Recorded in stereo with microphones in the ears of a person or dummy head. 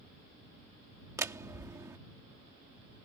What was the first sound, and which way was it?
A door slam, 15° right (ahead or behind).